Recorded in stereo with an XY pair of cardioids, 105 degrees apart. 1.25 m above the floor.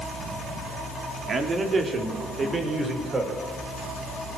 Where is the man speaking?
40° right, 3.5 m; by 3.4 s 30° right, 6 m.